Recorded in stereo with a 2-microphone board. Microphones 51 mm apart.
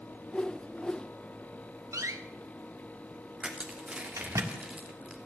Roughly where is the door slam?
Right.